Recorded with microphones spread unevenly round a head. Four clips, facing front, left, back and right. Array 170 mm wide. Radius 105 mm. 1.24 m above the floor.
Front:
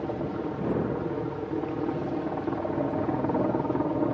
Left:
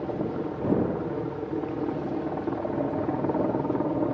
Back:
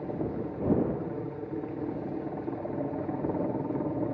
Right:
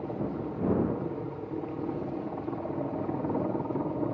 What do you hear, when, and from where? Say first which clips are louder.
0.0 s a helicopter: left 4 dB, front 2 dB; 70° left